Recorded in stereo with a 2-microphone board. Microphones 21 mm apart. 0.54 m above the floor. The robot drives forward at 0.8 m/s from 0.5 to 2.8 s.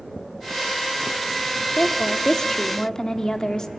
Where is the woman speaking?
25° left (ahead or behind), 1.1 m; by 3.7 s 30° left (ahead or behind), 1.0 m.